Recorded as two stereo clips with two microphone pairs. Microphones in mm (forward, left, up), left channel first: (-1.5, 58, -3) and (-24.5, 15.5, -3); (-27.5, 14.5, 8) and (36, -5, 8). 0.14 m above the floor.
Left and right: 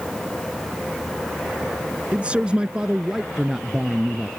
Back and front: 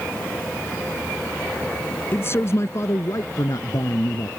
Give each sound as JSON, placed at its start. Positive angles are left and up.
{"t": 2.1, "sound": "a man speaking", "azimuth_deg": -170}